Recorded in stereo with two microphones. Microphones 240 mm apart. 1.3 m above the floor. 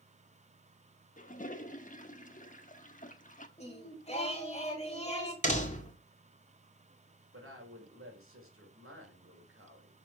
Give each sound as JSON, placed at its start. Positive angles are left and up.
{"t": 1.2, "sound": "a toilet flushing", "side_deg": 35, "distance_m": 1.2}
{"t": 3.6, "sound": "singing", "side_deg": 25, "distance_m": 3.0}
{"t": 5.4, "sound": "a door slam", "side_deg": 30, "distance_m": 2.5}
{"t": 7.3, "sound": "a woman speaking", "side_deg": -70, "distance_m": 4.5}